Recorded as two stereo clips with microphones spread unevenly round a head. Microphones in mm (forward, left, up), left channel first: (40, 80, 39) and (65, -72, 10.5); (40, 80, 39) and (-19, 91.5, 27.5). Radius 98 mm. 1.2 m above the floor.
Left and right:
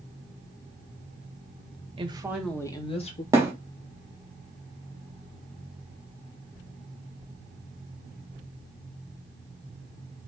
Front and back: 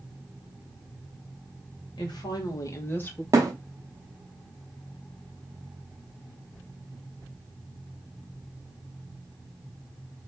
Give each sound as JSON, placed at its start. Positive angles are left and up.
{"t": 2.0, "sound": "a woman speaking", "azimuth_deg": -25, "distance_m": 1.1}
{"t": 3.3, "sound": "a thud", "azimuth_deg": -160, "distance_m": 0.7}